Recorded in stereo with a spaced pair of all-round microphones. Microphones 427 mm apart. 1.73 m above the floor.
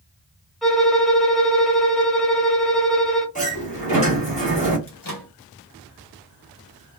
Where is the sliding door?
15° left (ahead or behind), 1.4 m.